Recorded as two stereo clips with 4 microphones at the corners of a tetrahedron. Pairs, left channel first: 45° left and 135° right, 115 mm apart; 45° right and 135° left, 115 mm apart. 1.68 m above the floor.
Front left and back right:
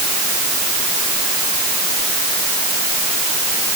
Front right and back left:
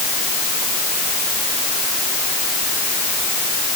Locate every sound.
Only background noise.